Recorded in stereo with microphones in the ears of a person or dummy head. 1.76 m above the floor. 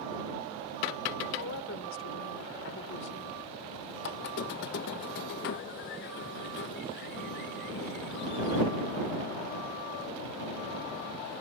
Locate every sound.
1.4 s a woman speaking: 75° left (ahead or behind)
4.0 s a squeak: 60° left (ahead or behind)